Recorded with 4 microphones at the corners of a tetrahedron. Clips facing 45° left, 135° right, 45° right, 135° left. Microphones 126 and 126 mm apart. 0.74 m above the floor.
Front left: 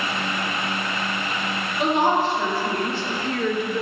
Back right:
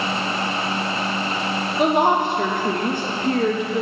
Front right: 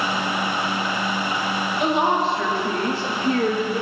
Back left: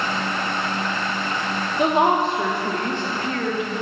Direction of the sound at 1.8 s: 175° right.